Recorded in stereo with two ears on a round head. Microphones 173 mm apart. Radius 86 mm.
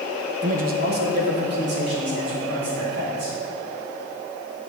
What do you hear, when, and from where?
0.4 s a man speaking: 35° right (ahead or behind), 0.6 m; by 3.4 s 60° right (ahead or behind), 5 m